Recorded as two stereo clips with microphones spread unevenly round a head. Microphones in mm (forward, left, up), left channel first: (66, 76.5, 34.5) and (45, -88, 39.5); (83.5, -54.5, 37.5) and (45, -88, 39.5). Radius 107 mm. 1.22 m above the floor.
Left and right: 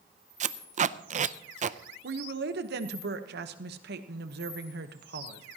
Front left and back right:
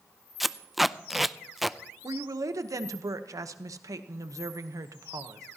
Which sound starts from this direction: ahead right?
Tape being pulled, at 0.4 s.